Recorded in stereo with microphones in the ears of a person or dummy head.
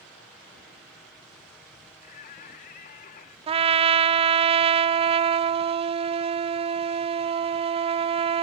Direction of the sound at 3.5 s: 35° right (ahead or behind).